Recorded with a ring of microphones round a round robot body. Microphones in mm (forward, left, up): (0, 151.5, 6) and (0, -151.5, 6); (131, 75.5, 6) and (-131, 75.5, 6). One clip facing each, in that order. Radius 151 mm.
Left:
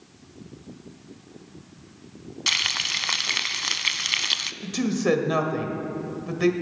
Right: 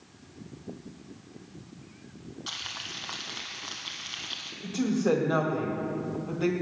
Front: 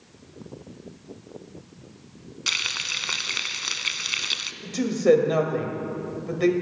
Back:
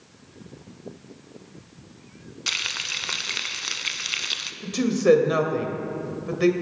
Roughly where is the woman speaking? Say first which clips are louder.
Left 2 dB, back 1 dB; left.